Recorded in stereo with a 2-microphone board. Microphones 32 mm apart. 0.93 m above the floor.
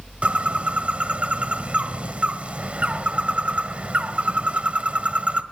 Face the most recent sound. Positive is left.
turn(degrees=-40)  # may be behind; listen again after turning